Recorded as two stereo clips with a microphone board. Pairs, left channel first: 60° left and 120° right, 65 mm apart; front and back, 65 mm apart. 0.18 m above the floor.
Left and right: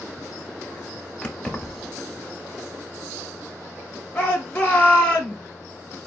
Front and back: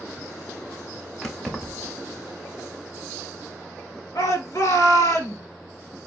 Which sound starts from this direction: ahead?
A shout, at 4.2 s.